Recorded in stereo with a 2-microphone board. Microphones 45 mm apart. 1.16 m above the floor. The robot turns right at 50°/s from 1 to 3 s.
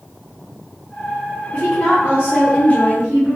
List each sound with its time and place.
1.5 s a woman speaking: 40° left, 1.0 m; by 3.4 s 110° left, 1.0 m